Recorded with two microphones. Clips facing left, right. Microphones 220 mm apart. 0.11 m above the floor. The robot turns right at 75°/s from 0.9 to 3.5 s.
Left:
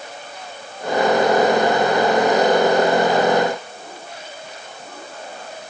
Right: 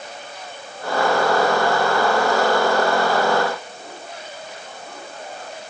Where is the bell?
No bell in this recording.